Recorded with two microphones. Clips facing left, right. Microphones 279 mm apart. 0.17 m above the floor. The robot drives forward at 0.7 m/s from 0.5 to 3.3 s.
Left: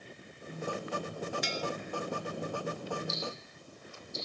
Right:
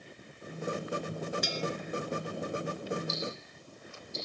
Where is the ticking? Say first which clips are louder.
Right 2 dB; 75° right (ahead or behind), 6.5 m.